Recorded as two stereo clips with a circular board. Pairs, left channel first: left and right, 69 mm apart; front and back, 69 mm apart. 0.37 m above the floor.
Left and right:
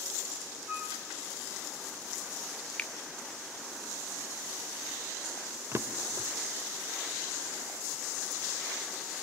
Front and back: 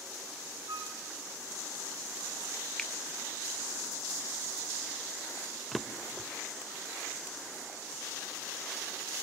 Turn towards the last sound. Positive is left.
turn(degrees=-85)